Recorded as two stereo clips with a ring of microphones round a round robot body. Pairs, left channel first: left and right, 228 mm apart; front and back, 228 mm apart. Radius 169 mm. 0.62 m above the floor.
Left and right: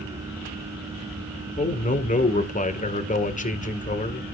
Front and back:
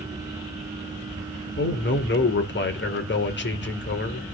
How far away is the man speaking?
About 2.5 m.